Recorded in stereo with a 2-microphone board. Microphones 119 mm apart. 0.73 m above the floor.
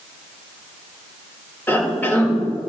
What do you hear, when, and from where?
1.7 s a cough: 15° left (ahead or behind), 1.9 m